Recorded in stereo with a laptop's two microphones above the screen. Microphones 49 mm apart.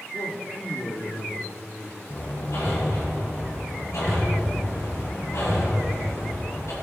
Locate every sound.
0.1 s a man speaking: 60° left (ahead or behind), 1.8 m
2.1 s hammering: 80° left, 6 m